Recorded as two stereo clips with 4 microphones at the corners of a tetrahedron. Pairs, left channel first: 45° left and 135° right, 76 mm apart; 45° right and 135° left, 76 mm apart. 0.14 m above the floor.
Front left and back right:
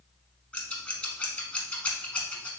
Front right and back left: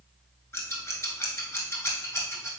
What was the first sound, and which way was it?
Scissors, 20° right.